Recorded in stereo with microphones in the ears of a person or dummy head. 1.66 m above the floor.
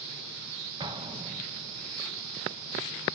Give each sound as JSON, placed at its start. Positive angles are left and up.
{"t": 0.8, "sound": "an explosion", "side_deg": -25, "distance_m": 0.9}